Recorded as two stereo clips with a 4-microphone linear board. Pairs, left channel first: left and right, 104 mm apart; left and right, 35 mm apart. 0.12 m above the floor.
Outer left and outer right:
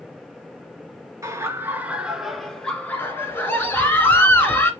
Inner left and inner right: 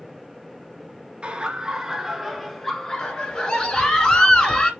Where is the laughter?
30° right (ahead or behind), 1.4 m; by 4.0 s 45° left (ahead or behind), 1.6 m.